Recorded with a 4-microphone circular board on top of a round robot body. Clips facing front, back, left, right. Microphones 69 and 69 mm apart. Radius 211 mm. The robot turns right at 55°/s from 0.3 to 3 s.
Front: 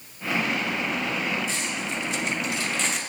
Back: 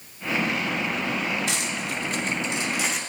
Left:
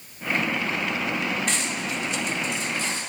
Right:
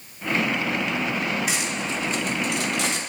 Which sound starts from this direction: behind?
Cutlery clinking, at 1.5 s.